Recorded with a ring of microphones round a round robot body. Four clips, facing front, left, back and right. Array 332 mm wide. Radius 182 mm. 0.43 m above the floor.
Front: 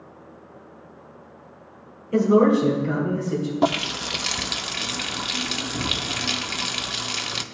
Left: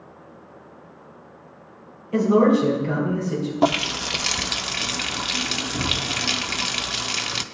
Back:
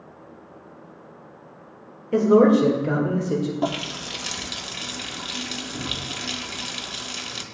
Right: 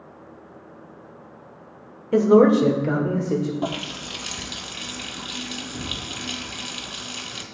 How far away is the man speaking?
About 2.0 m.